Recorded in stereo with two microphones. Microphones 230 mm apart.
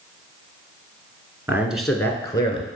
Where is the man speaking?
10° right (ahead or behind), 1.3 m; by 2.7 s 25° left (ahead or behind), 1.4 m.